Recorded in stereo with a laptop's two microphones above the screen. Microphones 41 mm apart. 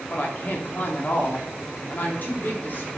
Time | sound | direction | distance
0.1 | a woman speaking | 50° left (ahead or behind) | 2 m